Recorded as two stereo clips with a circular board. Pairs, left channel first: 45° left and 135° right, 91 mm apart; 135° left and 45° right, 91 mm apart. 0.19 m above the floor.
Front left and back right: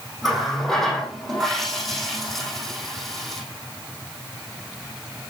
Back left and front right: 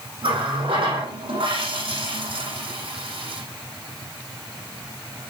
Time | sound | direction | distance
0.2 | a running tap | 45° right | 5.5 m